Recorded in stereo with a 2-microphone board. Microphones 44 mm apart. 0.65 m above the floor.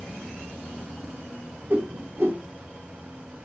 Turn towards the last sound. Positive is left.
turn(degrees=-55)  # may be behind; listen again after turning